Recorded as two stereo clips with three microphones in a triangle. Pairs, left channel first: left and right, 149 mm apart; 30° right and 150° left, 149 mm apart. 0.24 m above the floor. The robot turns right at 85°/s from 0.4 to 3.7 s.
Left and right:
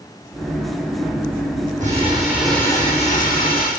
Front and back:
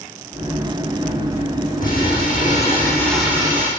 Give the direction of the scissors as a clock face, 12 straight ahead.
No scissors in this recording.